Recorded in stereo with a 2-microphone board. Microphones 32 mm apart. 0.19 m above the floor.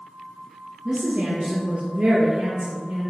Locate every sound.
0.8 s a woman speaking: 30° right (ahead or behind), 2.5 m